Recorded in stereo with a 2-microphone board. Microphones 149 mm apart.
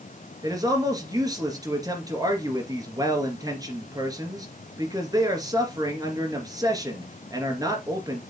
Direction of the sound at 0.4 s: 25° right (ahead or behind).